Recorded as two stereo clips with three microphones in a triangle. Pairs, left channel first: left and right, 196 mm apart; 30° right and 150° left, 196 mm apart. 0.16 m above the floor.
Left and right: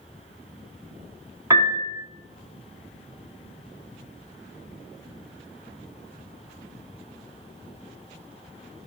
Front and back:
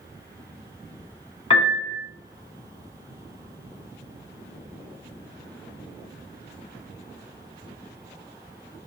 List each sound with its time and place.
1.5 s a piano: 35° right, 0.8 m